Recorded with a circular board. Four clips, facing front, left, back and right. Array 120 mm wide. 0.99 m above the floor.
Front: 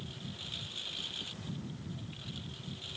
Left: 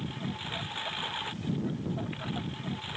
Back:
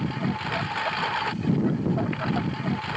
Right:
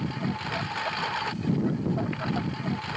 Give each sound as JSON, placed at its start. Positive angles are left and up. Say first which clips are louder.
{"t": 0.0, "sound": "a lawn mower", "louder": "right 6 dB, back 19 dB", "azimuth_deg": -160}